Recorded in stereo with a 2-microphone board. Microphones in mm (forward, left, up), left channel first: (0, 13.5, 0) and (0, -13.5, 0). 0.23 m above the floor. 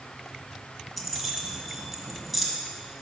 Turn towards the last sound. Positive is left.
turn(degrees=0)  # may be behind; listen again after turning